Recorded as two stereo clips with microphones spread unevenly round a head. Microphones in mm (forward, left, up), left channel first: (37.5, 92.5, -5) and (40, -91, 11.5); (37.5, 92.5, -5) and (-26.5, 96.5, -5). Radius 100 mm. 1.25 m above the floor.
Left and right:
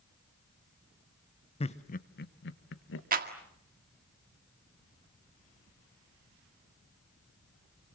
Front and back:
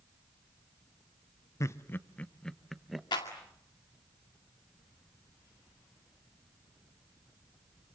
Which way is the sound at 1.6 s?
35° left.